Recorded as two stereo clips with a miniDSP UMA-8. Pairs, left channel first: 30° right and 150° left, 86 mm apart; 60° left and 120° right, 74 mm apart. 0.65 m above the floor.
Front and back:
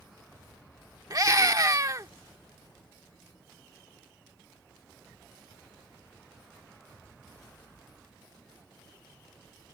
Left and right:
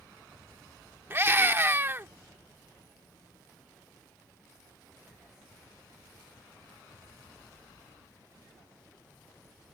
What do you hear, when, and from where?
1.1 s a scream: 175° right